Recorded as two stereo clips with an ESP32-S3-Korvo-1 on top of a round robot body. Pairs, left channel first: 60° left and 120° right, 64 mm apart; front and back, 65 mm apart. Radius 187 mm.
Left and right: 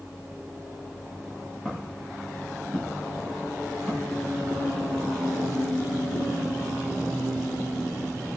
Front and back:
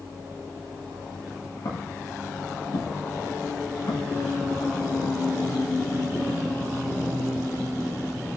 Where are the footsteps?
30° right, 8.5 m; by 4.8 s 15° right, 10 m.